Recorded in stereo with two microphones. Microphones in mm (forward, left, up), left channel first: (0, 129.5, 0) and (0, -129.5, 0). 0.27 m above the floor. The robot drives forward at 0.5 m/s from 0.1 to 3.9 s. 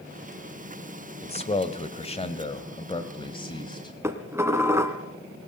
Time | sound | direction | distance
1.2 | a man speaking | 25° left (ahead or behind) | 1.2 m
4.0 | dishes clattering | 10° right (ahead or behind) | 1.6 m